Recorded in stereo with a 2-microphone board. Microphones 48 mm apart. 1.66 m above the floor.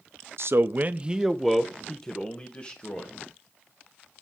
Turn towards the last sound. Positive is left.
turn(degrees=30)  # may be behind; listen again after turning